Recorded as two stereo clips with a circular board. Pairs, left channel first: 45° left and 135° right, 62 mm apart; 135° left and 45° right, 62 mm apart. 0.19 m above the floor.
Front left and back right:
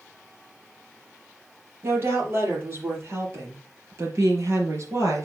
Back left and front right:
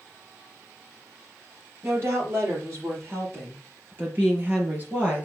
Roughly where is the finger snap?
No finger snap in this recording.